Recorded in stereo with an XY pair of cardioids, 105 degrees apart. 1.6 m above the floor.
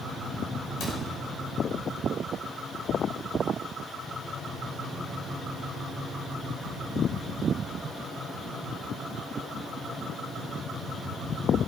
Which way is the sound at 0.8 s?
70° left.